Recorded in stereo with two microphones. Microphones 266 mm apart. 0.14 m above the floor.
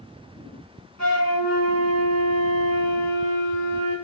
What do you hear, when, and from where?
1.0 s a flute: 80° right, 4 m